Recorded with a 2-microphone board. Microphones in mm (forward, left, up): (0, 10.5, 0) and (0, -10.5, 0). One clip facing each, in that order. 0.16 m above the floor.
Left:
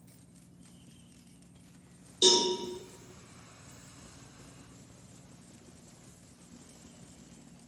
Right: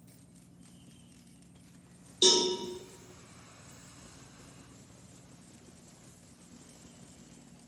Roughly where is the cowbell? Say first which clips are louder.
Even; centre.